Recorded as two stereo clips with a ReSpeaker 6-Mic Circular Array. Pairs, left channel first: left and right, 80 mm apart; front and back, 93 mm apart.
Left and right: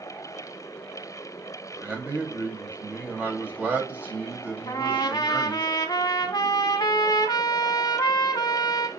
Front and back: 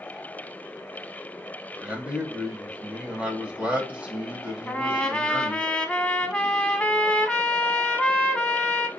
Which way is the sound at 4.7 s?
80° left.